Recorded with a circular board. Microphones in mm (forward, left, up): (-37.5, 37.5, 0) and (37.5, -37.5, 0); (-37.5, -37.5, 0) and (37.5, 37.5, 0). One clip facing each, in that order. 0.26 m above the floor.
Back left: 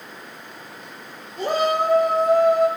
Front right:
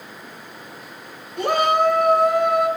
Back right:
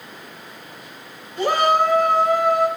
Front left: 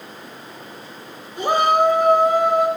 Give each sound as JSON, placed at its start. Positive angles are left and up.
{"t": 1.4, "sound": "a shout", "azimuth_deg": -30, "distance_m": 2.5}